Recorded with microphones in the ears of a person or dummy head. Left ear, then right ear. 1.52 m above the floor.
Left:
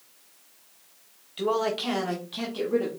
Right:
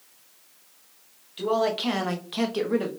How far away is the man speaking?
About 0.9 m.